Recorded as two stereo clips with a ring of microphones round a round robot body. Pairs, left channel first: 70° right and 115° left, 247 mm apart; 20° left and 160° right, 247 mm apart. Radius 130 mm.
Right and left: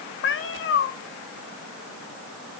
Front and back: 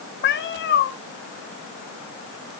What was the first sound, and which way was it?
A cat meowing, 25° right.